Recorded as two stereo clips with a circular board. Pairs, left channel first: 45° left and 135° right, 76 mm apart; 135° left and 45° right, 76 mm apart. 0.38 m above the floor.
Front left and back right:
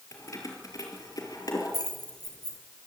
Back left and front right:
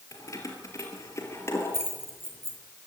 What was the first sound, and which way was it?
Keys jangling, 90° left.